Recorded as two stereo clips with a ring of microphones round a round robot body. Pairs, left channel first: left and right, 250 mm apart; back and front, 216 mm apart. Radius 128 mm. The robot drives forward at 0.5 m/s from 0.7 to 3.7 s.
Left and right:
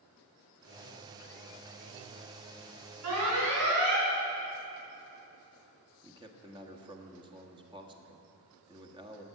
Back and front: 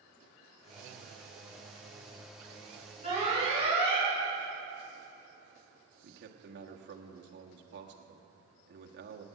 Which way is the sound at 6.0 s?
20° right.